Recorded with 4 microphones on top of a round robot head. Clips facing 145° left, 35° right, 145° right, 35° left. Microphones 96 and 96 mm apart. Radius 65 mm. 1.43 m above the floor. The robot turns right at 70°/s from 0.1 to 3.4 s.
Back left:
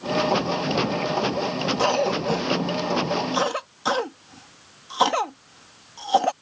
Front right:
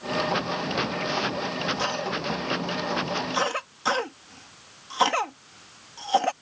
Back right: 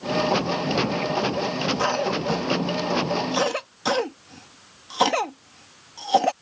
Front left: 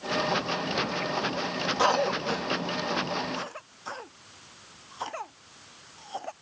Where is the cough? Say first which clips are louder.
Back left 7 dB, front left 2 dB; 105° left; by 6.3 s 140° right.